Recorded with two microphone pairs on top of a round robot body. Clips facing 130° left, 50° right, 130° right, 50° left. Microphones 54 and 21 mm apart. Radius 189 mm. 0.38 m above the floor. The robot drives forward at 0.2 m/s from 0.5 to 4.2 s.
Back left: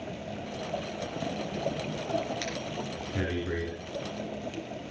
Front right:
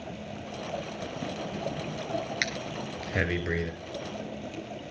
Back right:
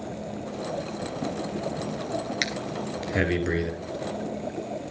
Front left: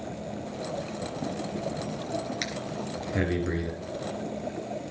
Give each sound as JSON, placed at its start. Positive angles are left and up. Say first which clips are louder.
{"t": 2.4, "sound": "breathing", "louder": "front right 2 dB, back right 4 dB", "azimuth_deg": -75, "distance_m": 3.5}